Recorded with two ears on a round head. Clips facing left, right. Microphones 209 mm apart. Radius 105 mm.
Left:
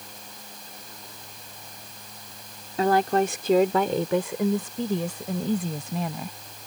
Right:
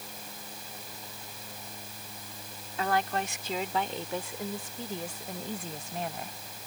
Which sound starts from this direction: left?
A woman speaking, at 2.8 s.